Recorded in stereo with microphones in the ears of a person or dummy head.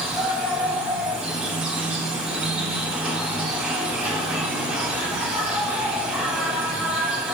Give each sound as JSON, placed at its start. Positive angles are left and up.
{"t": 0.0, "sound": "an insect", "side_deg": -5, "distance_m": 1.4}